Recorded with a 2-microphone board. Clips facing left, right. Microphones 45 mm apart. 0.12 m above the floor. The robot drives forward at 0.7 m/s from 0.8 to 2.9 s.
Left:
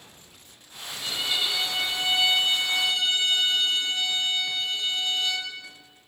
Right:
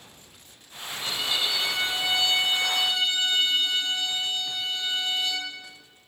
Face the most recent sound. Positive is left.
turn(degrees=5)  # may be behind; listen again after turning